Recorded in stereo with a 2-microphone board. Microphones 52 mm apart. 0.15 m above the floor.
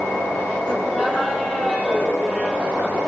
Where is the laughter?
15° left (ahead or behind), 9 m; by 3.0 s 30° left (ahead or behind), 9 m.